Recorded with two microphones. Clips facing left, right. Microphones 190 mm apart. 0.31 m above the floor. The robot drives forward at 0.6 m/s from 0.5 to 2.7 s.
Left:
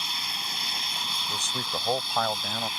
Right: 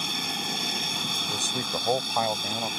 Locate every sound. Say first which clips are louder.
0.0 s an aircraft: right 8 dB; 50° right (ahead or behind)
1.3 s a man speaking: right 2 dB; 15° right (ahead or behind); by 2.7 s 10° right (ahead or behind)